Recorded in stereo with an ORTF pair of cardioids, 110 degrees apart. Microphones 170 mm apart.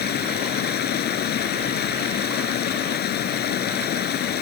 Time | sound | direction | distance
0.0 | running water | 65° left | ?